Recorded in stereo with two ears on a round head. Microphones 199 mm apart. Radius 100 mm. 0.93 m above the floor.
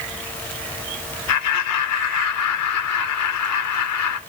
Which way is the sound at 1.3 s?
85° left.